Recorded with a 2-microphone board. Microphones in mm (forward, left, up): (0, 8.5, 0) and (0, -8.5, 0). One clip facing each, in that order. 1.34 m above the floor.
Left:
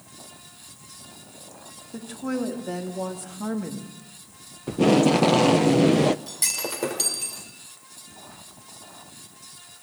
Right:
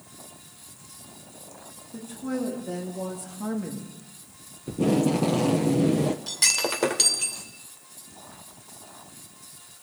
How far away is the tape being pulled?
About 0.5 m.